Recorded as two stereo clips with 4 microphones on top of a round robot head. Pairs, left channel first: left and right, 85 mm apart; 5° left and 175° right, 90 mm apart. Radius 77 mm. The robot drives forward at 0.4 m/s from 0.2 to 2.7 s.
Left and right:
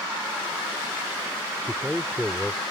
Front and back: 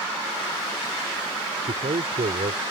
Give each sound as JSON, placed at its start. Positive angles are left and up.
{"t": 1.6, "sound": "a man speaking", "azimuth_deg": 180}